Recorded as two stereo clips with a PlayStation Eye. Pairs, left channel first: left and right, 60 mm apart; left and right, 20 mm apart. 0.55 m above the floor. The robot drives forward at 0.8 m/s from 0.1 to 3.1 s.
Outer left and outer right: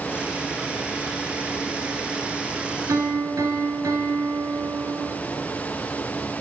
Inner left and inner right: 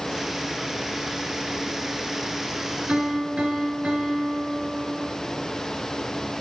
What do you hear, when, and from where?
2.9 s a piano: 85° right, 1.3 m; by 5.1 s 75° right (ahead or behind), 1.4 m